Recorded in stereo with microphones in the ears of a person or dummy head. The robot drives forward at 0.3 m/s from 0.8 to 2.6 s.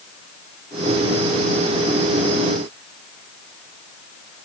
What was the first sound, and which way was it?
Only background noise.